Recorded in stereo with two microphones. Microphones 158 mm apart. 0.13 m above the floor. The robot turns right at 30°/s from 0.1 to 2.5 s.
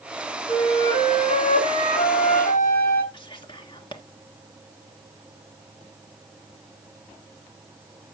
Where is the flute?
35° left, 4 m; by 3.0 s 95° left, 4 m.